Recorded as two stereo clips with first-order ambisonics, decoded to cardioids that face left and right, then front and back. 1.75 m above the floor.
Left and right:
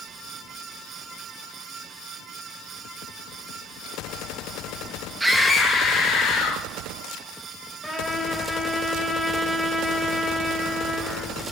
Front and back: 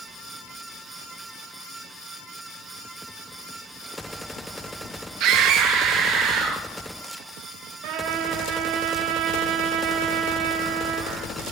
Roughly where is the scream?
Behind.